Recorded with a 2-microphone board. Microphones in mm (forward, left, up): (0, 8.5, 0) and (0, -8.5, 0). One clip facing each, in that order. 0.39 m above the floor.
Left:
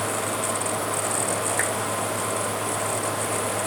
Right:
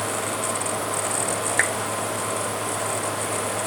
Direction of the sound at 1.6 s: 40° right (ahead or behind).